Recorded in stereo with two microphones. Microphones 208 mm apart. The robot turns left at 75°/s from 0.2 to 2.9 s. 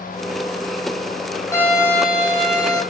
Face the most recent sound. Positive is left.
turn(degrees=-90)